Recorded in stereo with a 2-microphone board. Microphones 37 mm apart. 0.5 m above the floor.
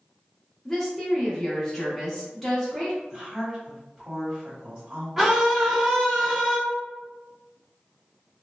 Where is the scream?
5° right (ahead or behind), 1.0 m.